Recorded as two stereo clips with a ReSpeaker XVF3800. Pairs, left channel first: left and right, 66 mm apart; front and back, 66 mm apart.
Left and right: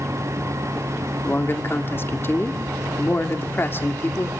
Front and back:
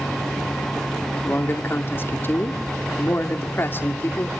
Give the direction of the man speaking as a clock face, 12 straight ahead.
10 o'clock.